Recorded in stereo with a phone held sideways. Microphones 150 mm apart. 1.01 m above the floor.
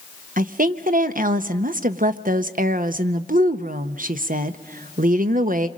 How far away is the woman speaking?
About 0.8 m.